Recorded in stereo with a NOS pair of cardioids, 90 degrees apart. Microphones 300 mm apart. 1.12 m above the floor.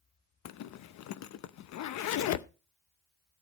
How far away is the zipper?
About 0.7 m.